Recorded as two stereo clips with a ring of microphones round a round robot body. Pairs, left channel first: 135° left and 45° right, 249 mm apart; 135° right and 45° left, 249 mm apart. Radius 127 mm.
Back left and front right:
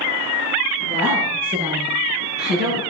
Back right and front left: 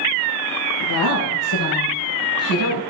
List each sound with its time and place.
0.8 s a woman speaking: 110° right, 7.5 m